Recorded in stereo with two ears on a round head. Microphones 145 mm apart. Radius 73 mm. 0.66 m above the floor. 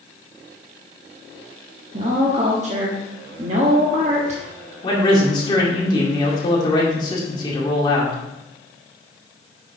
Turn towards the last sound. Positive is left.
turn(degrees=30)  # may be behind; listen again after turning